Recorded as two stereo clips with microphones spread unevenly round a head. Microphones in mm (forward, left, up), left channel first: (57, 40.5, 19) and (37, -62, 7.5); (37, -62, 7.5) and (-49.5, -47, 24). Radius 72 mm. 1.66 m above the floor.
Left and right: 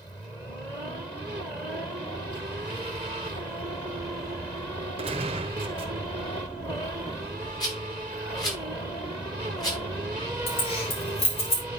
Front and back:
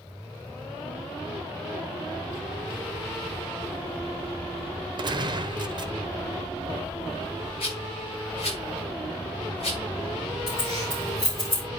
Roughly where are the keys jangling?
Ahead left.